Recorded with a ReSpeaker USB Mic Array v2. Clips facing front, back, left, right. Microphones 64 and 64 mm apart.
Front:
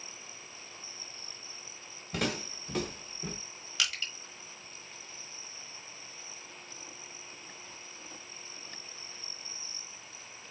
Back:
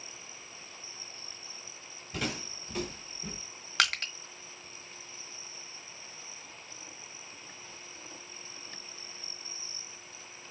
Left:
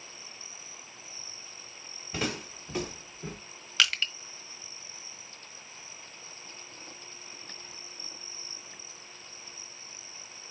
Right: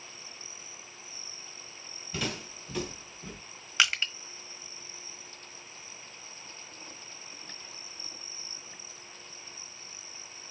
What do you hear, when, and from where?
2.1 s footsteps: 25° left, 3 m; by 3.4 s 35° left, 1.8 m
3.8 s crushing: 160° right, 1.3 m